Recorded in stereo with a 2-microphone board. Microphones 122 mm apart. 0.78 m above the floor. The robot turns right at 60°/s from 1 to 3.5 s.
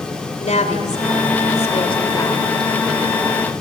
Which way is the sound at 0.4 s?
75° left.